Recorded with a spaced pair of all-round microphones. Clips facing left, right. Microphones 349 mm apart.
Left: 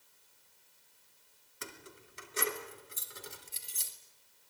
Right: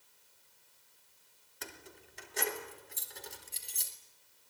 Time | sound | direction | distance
1.6 | keys jangling | 10° left (ahead or behind) | 2.5 m